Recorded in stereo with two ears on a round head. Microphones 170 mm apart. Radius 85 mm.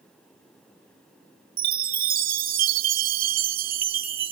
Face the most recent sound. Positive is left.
turn(degrees=-50)  # may be behind; listen again after turning